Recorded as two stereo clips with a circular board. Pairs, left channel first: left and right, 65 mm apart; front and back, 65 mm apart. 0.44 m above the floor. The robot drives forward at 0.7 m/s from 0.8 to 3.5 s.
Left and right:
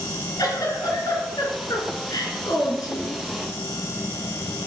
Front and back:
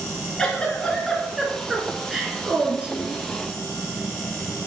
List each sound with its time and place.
0.4 s a giggle: 80° left, 2.5 m; by 3.2 s 115° left, 3 m